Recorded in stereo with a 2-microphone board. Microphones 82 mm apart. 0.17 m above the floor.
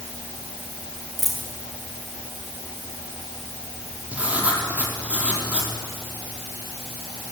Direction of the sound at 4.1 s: 15° right (ahead or behind).